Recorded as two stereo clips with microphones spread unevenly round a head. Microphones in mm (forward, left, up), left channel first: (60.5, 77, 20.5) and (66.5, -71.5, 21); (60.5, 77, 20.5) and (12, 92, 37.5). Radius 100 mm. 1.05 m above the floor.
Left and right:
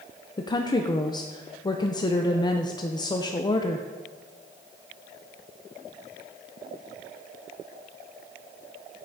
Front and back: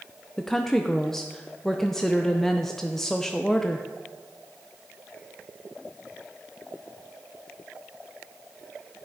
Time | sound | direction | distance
0.4 | a woman speaking | 40° left | 0.5 m